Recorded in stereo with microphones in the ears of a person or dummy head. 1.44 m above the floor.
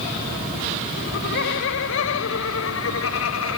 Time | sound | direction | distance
1.0 | laughter | 55° left (ahead or behind) | ?